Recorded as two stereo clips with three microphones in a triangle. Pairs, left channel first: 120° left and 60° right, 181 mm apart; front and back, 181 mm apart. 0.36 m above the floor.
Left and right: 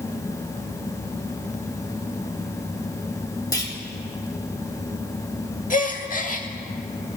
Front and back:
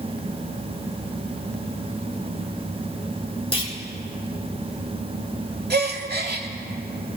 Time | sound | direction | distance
3.5 | a clunk | 55° left | 1.0 m
5.7 | a gasp | 160° left | 0.7 m